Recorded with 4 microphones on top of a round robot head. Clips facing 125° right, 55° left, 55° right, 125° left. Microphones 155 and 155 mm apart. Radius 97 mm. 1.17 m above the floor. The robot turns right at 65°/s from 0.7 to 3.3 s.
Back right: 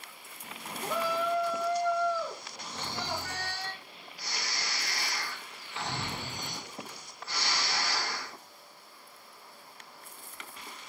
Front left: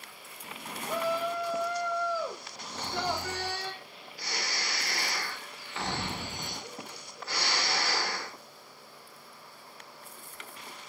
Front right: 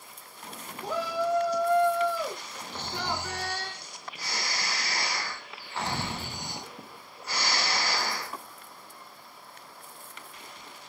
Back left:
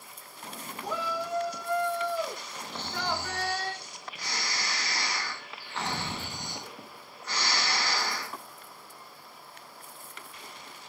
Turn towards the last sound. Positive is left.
turn(degrees=30)